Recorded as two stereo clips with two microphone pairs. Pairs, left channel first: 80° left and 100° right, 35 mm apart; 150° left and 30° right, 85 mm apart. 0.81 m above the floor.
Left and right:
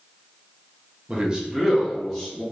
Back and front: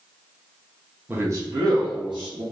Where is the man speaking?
80° right, 0.6 m; by 2.4 s 15° right, 1.3 m.